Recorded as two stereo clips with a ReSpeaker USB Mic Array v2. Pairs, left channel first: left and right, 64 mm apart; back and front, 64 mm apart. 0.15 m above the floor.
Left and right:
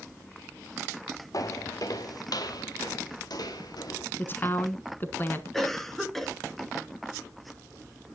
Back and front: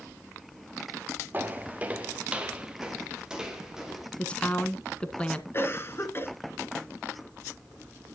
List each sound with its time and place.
1.3 s footsteps: 60° left, 1.4 m; by 4.1 s 80° left, 3.5 m
4.2 s a woman speaking: 120° left, 1.2 m
5.5 s a cough: 170° left, 1.7 m